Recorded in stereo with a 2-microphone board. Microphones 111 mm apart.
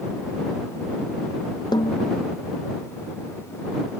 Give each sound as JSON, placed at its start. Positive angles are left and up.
{"t": 1.7, "sound": "a snare drum", "side_deg": 40}